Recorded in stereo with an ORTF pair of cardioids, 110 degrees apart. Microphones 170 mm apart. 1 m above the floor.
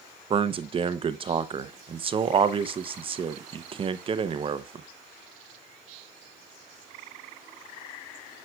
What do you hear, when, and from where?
0.3 s a man speaking: 35° right, 0.6 m